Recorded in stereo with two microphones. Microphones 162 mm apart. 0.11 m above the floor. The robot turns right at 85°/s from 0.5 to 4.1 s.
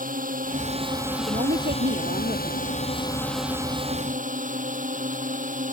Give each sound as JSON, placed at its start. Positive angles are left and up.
{"t": 0.0, "sound": "a drone", "azimuth_deg": -65}
{"t": 1.2, "sound": "a woman speaking", "azimuth_deg": -145}